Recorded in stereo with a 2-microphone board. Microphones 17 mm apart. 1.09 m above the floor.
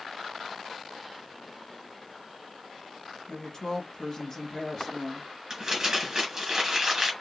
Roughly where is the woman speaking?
Left.